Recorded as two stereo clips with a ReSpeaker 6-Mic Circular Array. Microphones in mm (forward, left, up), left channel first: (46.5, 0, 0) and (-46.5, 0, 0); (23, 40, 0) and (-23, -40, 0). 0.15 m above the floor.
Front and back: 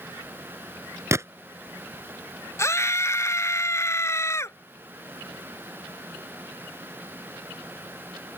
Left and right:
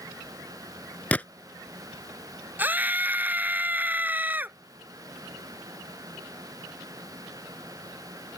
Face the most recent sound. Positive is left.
turn(degrees=-55)